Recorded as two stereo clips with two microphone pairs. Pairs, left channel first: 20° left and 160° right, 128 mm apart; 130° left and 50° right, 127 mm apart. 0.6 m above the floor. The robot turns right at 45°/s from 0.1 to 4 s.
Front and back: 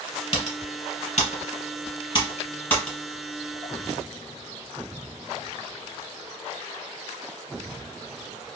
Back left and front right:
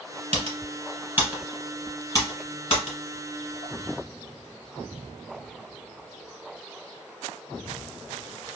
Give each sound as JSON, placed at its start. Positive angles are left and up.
{"t": 0.3, "sound": "typing on a keyboard", "azimuth_deg": -15, "distance_m": 1.2}